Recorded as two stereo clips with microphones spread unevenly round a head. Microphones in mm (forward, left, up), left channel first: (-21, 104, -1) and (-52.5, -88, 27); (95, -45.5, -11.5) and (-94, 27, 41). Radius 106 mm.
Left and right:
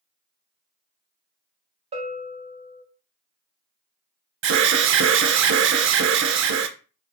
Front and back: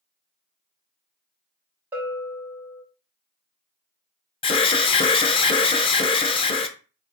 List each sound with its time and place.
1.9 s a bell: 135° right, 1.4 m
4.4 s an alarm: 75° right, 0.6 m